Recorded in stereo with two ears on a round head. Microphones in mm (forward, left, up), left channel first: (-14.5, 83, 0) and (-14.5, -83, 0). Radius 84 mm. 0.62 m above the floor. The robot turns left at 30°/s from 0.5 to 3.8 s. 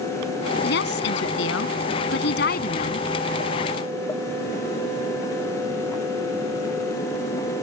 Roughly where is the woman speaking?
Left.